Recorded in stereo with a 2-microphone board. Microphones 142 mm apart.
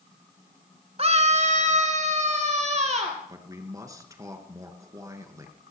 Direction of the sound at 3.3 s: 25° right (ahead or behind).